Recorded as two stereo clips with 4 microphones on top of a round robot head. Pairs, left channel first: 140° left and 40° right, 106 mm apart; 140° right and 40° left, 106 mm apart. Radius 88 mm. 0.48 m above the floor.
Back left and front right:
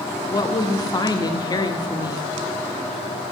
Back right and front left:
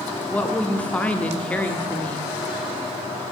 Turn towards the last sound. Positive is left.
turn(degrees=150)